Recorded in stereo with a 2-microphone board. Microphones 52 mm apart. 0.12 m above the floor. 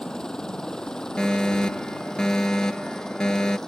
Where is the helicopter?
10° left (ahead or behind).